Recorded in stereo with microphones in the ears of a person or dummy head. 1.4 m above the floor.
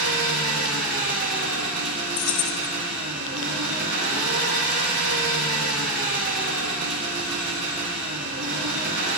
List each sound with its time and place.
0.0 s an engine running: 65° right (ahead or behind), 1.5 m
2.2 s keys jangling: 50° left (ahead or behind), 1.3 m